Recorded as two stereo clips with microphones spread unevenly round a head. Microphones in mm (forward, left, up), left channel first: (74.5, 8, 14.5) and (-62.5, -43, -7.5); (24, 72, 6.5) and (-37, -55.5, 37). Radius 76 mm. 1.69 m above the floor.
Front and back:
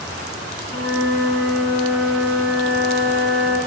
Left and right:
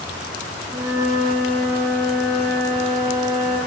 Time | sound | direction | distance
0.7 | a flute | straight behind | 8.5 m